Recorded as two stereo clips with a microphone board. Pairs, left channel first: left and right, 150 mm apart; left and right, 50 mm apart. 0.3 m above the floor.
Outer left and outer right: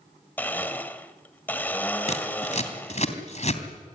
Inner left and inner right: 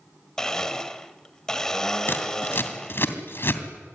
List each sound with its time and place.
0.4 s a blender: 10° left (ahead or behind), 1.6 m
2.1 s scissors: 50° left (ahead or behind), 2.5 m